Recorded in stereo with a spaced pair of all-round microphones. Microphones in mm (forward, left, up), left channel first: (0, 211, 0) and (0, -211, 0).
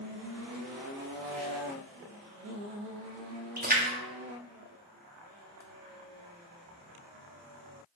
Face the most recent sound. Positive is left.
turn(degrees=-20)  # may be behind; listen again after turning